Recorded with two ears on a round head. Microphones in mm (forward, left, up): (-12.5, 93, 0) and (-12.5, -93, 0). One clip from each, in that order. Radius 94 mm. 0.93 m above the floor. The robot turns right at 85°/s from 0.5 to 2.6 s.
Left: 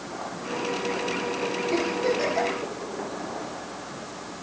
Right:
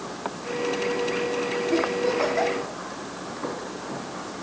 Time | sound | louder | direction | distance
1.7 | a giggle | right 1 dB | 85° left | 10 m